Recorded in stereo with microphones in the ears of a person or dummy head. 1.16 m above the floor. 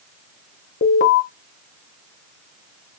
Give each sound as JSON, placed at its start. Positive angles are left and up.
{"t": 0.8, "sound": "an alarm", "side_deg": 45, "distance_m": 0.9}